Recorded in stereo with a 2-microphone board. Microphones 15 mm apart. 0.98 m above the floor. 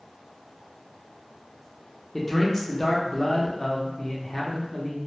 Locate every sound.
2.1 s a man speaking: 25° left (ahead or behind), 0.6 m